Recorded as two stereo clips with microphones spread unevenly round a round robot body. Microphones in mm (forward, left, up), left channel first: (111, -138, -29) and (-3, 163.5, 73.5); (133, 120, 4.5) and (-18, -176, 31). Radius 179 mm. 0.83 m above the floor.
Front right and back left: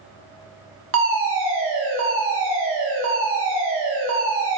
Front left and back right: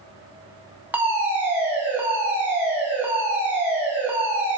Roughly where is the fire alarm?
Behind left.